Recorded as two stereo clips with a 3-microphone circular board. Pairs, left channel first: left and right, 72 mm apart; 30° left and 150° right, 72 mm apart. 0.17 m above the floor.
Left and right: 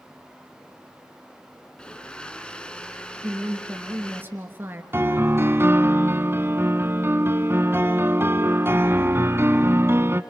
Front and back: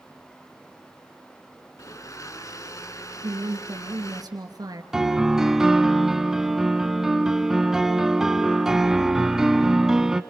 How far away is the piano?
About 1.0 m.